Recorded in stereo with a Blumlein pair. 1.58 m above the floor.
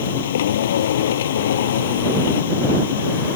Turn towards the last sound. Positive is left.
turn(degrees=60)